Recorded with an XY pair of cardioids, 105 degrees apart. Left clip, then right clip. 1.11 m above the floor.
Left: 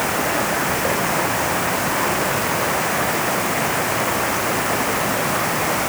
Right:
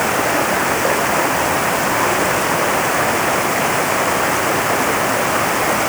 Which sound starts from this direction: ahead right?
Running water, at 0.0 s.